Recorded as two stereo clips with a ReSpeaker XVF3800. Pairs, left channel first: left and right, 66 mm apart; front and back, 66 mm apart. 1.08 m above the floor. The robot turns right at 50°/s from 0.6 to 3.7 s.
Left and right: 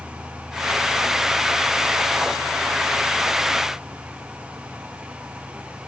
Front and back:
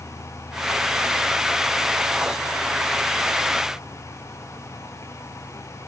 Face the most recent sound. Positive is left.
No sound to turn to.